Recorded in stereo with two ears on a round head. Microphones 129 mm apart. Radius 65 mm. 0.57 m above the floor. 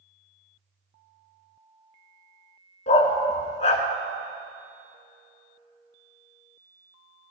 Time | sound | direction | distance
2.9 | a dog barking | 50° left (ahead or behind) | 1.5 m